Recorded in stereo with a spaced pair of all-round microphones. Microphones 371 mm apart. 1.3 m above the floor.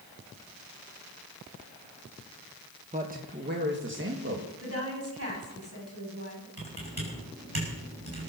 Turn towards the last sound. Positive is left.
turn(degrees=-90)